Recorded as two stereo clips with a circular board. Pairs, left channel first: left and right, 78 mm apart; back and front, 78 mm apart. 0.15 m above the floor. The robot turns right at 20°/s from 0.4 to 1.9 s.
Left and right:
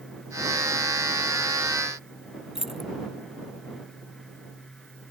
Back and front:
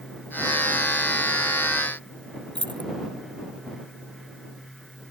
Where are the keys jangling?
5° right.